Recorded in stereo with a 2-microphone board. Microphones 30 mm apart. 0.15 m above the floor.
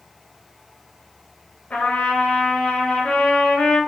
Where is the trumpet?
40° left (ahead or behind), 1.4 m.